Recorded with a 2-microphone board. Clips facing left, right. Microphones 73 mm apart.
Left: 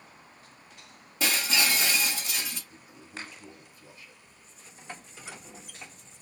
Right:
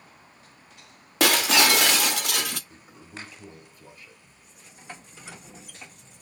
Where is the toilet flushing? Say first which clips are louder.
Right 1 dB; 45° right (ahead or behind), 3 m.